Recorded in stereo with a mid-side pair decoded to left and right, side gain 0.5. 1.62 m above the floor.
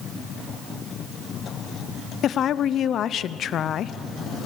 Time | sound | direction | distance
2.2 | a woman speaking | 60° left | 0.7 m